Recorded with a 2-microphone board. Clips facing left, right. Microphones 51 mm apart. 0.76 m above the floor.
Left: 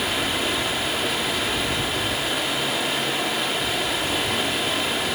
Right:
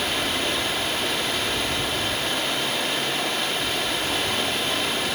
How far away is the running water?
About 1.5 m.